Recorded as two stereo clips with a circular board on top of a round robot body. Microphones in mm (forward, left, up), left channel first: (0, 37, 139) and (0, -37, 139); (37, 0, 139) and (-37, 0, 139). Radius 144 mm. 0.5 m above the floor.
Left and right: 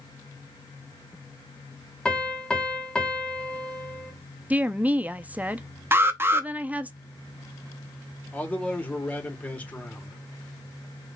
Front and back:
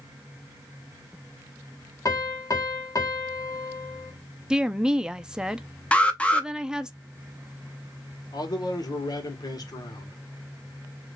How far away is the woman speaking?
About 0.7 m.